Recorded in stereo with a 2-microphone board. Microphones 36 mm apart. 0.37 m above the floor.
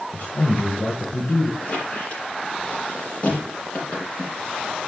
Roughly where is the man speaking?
Left.